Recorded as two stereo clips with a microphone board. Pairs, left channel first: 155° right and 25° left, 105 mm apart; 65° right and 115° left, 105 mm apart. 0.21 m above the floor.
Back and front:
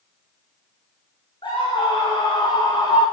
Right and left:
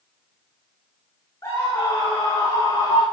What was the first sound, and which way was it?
A scream, 120° right.